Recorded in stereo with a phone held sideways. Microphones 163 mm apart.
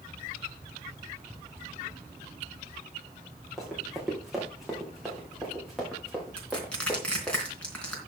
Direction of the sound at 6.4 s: 5° left (ahead or behind).